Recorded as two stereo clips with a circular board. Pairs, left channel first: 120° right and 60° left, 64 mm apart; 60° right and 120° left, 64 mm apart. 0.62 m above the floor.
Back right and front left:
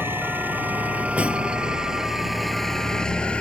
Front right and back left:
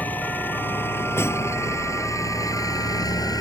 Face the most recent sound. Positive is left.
turn(degrees=-45)